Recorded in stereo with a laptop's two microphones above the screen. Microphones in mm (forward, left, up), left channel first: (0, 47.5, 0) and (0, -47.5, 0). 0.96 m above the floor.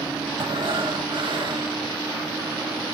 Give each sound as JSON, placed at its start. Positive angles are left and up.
{"t": 0.4, "sound": "breathing", "side_deg": -60, "distance_m": 1.0}